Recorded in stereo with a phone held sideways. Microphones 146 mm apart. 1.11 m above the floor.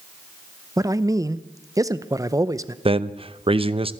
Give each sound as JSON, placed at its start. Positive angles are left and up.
{"t": 0.8, "sound": "a man speaking", "side_deg": -25, "distance_m": 0.6}
{"t": 2.9, "sound": "a man speaking", "side_deg": -40, "distance_m": 0.6}